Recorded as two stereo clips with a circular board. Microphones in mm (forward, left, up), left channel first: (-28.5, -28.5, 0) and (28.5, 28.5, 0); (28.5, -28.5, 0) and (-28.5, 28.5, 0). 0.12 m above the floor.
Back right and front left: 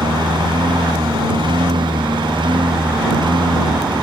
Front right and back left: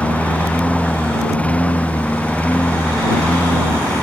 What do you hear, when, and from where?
0.0 s a lawn mower: 25° left